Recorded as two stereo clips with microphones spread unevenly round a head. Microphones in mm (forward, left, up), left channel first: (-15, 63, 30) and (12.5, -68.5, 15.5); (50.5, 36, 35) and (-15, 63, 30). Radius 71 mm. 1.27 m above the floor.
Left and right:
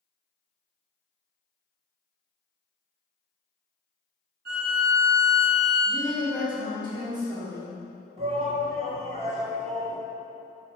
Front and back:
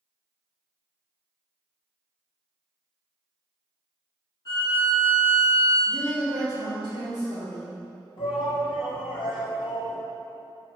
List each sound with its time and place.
4.5 s a violin: 75° right, 2 m
5.9 s a woman speaking: 140° right, 3 m
8.2 s a shout: 30° right, 2 m